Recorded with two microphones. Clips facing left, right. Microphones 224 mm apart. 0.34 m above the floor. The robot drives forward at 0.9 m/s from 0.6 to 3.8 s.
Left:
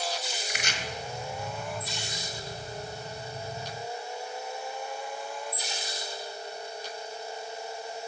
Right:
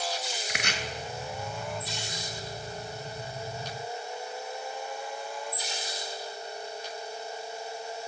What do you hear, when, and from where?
0.5 s chopping: 60° right (ahead or behind), 0.7 m